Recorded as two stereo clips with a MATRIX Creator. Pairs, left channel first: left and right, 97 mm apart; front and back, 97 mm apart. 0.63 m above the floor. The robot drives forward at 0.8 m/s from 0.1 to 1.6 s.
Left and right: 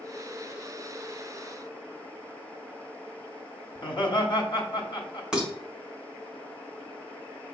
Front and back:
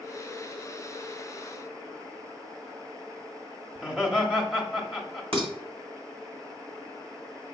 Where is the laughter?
100° left, 1.1 m.